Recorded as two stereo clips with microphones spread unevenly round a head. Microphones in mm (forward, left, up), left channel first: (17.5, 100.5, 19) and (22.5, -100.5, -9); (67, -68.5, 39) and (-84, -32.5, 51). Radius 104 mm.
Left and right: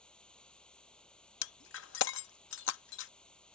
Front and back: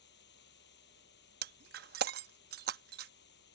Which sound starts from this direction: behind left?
Breaking glass, at 1.4 s.